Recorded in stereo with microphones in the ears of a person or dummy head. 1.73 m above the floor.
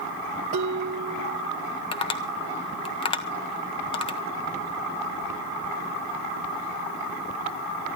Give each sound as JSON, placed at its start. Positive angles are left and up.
{"t": 0.5, "sound": "dishes clattering", "side_deg": -45, "distance_m": 2.5}
{"t": 1.9, "sound": "tapping", "side_deg": 25, "distance_m": 1.2}